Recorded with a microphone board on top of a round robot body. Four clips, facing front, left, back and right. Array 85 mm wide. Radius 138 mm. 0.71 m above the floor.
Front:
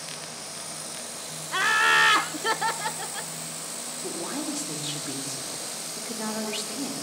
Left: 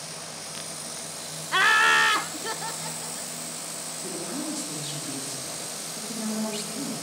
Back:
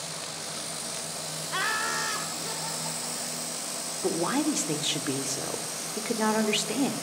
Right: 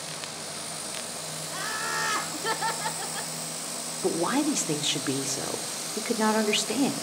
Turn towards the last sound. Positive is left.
turn(degrees=-120)